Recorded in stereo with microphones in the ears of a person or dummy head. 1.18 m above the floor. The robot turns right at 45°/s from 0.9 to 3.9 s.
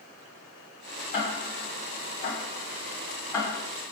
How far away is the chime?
I don't hear a chime.